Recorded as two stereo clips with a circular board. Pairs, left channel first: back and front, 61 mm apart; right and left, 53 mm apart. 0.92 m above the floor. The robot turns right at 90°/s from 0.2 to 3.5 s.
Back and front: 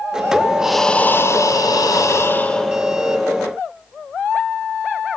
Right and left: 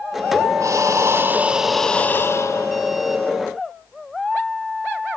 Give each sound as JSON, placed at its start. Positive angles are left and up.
{"t": 0.6, "sound": "breathing", "azimuth_deg": 80, "distance_m": 1.8}